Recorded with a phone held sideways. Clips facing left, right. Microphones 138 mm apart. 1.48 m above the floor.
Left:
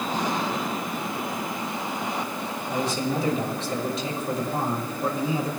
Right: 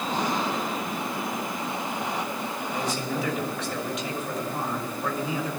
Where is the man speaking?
30° left (ahead or behind), 3 m.